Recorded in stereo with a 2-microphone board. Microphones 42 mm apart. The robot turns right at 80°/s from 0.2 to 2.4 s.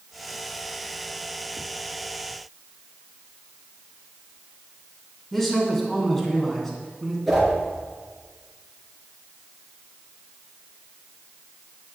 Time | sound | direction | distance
5.3 | a man speaking | 5° left (ahead or behind) | 2 m
7.3 | a whoosh | 5° left (ahead or behind) | 3.5 m